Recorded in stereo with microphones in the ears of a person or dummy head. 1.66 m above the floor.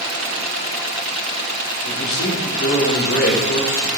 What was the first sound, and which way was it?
A man speaking, 65° left (ahead or behind).